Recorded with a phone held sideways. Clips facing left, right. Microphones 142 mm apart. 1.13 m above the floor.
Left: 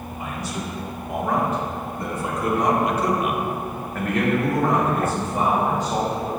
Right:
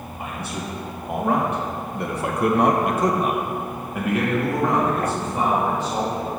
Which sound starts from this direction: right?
A man speaking, at 0.2 s.